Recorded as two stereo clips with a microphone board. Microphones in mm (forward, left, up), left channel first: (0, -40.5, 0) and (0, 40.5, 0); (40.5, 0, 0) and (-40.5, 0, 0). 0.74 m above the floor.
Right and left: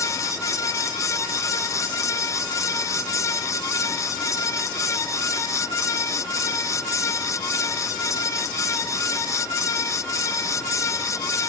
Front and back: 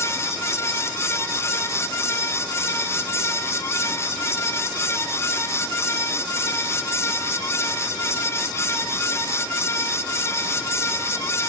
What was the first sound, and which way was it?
Only background noise.